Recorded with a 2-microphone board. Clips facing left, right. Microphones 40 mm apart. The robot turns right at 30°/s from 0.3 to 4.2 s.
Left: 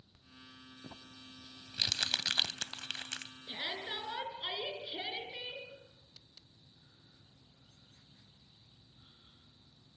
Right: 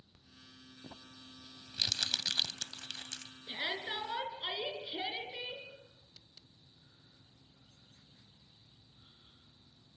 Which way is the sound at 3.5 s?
30° right (ahead or behind).